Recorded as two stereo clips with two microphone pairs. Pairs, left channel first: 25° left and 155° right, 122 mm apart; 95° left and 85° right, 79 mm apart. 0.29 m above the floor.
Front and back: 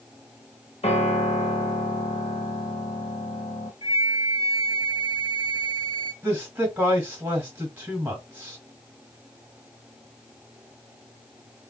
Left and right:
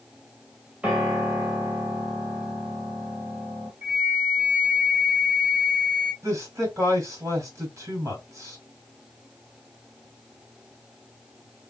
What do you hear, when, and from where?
0.8 s a piano: 10° right, 1.3 m
3.8 s a flute: 25° right, 2.0 m
6.2 s a man speaking: 90° right, 1.8 m